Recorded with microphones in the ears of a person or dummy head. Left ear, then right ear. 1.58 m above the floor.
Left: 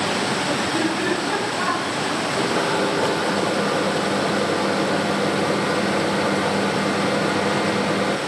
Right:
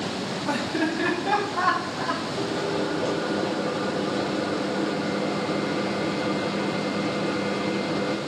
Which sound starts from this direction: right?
Laughter, at 0.5 s.